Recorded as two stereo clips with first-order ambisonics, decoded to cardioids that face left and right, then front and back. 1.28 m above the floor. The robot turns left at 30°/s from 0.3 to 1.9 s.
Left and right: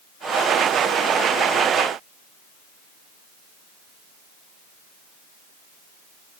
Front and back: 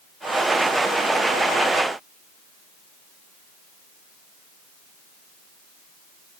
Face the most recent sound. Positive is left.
No sound to turn to.